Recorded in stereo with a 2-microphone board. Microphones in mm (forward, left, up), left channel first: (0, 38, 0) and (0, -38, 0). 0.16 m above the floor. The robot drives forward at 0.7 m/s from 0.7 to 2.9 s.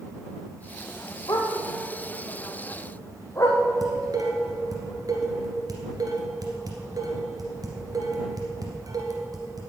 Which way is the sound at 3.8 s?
55° right (ahead or behind).